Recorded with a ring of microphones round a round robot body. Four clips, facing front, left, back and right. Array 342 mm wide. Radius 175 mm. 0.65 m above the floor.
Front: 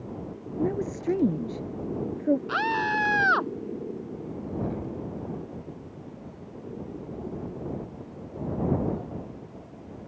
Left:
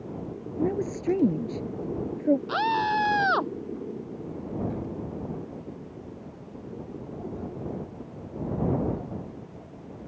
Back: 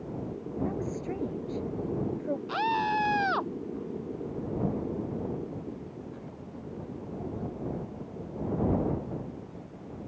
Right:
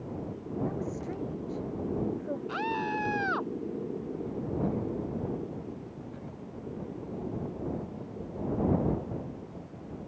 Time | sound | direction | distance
0.6 | a woman speaking | 50° left | ?
2.5 | a scream | 70° left | ?